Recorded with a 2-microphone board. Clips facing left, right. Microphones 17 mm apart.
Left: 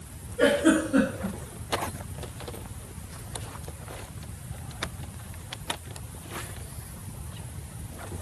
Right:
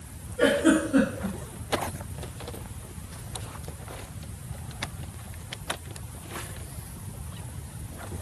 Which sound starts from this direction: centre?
A giggle, at 0.4 s.